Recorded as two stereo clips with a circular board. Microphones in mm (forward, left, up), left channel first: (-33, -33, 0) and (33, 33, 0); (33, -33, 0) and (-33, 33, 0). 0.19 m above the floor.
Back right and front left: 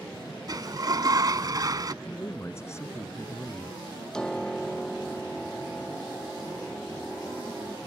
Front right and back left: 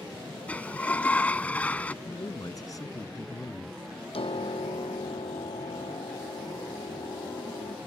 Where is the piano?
55° right.